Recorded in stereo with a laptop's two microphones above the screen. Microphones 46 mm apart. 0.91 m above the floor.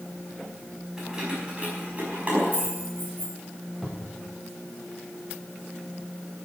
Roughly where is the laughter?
I don't hear laughter.